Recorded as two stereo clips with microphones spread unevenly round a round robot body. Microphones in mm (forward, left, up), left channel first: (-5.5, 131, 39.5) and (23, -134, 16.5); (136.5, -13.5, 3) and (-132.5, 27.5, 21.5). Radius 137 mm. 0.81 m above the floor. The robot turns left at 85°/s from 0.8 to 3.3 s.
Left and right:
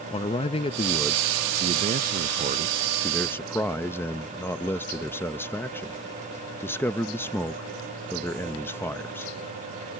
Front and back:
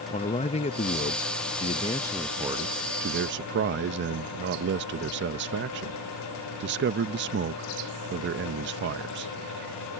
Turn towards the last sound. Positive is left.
turn(degrees=180)